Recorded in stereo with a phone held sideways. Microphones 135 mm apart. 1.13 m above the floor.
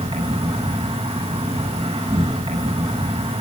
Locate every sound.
0.0 s an insect: 50° right (ahead or behind), 9 m